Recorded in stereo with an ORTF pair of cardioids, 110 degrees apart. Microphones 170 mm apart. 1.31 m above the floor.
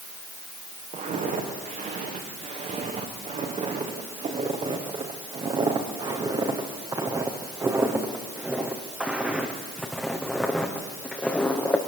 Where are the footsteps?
50° right, 6 m; by 11.8 s 10° left, 4.5 m.